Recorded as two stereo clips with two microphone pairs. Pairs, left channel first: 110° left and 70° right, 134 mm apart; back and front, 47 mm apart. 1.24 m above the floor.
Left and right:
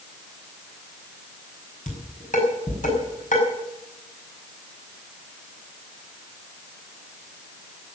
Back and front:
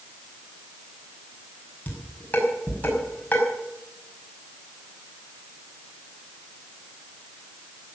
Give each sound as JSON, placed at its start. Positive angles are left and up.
{"t": 1.9, "sound": "dishes clattering", "azimuth_deg": 125, "distance_m": 5.5}